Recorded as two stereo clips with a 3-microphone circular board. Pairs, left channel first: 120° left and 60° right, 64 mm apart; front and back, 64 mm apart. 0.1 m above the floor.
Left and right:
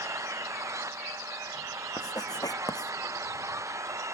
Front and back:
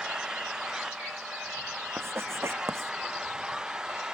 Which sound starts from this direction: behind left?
Writing, at 2.0 s.